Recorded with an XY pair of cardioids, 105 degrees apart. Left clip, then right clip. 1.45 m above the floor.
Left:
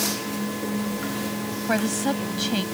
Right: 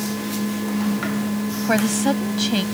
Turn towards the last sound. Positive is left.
turn(degrees=-25)